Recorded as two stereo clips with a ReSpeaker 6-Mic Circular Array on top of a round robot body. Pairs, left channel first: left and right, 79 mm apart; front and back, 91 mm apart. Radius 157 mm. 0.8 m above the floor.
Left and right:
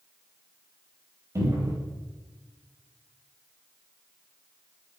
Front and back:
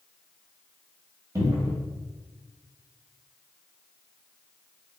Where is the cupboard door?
125° right, 1.8 m.